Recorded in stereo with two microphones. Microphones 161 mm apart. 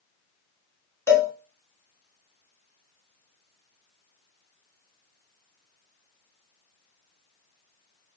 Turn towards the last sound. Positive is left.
turn(degrees=15)  # may be behind; listen again after turning